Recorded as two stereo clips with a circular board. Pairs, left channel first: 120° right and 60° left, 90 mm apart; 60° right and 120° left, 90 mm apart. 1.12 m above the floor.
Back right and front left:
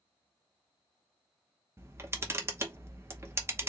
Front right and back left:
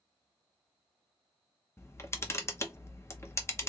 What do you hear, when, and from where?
1.8 s a camera shutter: straight ahead, 0.8 m